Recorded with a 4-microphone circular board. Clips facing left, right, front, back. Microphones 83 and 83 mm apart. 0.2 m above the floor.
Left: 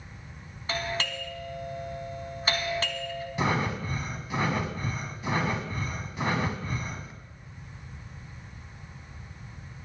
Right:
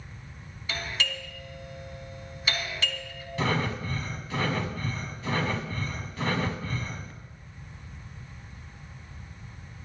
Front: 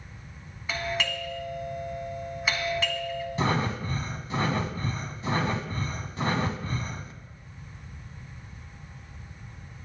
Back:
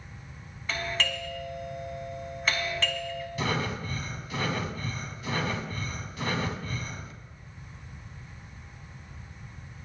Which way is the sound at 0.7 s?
80° left.